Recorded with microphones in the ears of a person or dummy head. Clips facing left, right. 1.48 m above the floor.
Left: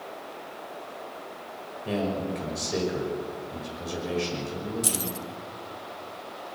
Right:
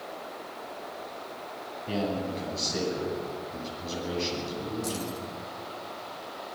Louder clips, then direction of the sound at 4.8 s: Even; 50° left (ahead or behind).